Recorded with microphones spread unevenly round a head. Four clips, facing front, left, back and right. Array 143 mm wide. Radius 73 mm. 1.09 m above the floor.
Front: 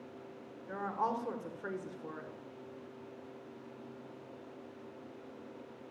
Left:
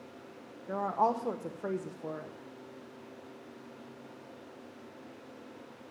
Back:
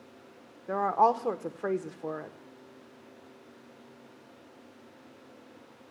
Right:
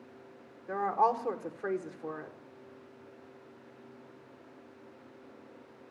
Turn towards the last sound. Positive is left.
turn(degrees=-175)